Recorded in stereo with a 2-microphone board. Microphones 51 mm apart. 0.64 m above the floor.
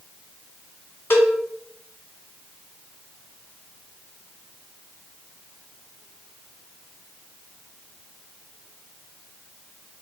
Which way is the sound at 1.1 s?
50° left (ahead or behind).